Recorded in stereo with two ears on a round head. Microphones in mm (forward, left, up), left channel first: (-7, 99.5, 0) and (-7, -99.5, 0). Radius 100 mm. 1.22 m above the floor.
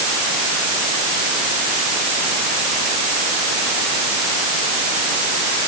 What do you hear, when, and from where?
Only background noise.